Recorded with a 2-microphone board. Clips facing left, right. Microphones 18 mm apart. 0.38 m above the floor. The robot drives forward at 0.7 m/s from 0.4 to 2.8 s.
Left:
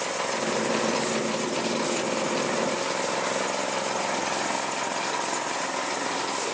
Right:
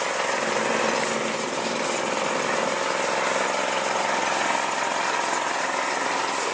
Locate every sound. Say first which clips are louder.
0.0 s an engine running: right 3 dB; 20° right (ahead or behind); by 6.5 s 15° right (ahead or behind)